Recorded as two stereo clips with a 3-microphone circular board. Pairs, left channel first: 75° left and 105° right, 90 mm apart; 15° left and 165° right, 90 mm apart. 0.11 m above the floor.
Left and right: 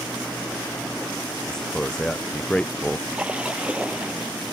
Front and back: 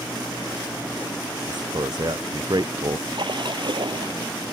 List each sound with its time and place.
1.5 s a man speaking: 155° left
3.1 s a splash: straight behind